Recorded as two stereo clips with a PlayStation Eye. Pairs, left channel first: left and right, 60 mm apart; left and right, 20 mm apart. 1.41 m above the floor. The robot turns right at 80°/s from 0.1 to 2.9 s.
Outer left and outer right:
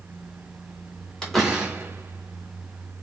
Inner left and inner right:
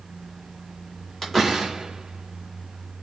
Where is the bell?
I don't hear a bell.